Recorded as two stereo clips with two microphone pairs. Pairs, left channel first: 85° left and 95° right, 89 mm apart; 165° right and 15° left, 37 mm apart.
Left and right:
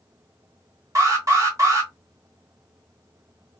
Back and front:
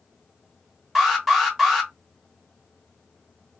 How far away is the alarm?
About 1.2 m.